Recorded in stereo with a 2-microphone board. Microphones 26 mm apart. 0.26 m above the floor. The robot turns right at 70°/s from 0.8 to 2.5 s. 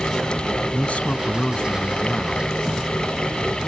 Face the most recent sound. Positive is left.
turn(degrees=-165)